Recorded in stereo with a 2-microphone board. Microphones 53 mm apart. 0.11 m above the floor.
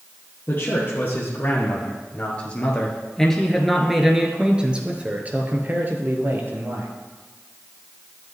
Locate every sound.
0.5 s a man speaking: 45° left (ahead or behind), 2.5 m; by 6.9 s 50° right (ahead or behind), 2 m